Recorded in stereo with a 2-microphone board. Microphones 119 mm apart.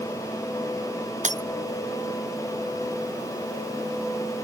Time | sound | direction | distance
1.2 | breaking glass | 80° right | ?